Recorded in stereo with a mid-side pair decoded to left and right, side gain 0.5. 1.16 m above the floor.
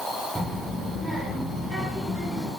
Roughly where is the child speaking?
Ahead.